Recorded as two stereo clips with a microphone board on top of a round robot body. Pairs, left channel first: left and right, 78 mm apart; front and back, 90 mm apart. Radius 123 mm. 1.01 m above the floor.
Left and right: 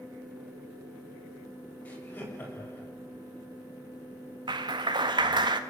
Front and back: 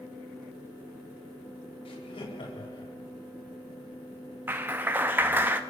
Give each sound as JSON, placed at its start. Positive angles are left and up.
{"t": 1.9, "sound": "laughter", "azimuth_deg": 20, "distance_m": 7.5}
{"t": 4.5, "sound": "a clap", "azimuth_deg": -110, "distance_m": 1.9}